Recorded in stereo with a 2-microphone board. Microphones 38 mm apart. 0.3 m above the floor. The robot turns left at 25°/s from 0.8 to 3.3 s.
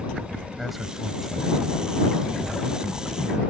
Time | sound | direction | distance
0.6 | a man speaking | 175° right | ?